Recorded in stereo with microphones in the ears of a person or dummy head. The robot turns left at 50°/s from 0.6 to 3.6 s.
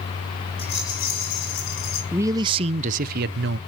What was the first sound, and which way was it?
A rattle, 160° left.